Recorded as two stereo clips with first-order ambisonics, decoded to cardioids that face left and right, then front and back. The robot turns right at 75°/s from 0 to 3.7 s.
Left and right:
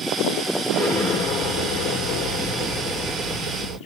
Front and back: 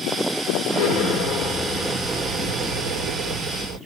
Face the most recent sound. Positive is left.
turn(degrees=-130)